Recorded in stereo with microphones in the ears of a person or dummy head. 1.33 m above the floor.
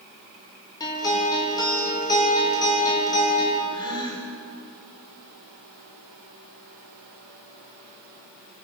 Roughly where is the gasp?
Left.